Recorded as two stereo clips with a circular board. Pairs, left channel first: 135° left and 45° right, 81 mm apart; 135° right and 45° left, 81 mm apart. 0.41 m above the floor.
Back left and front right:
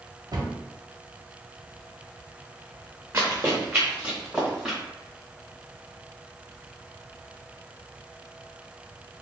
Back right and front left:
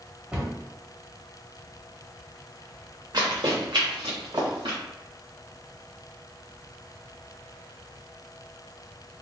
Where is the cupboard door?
30° right, 1.8 m.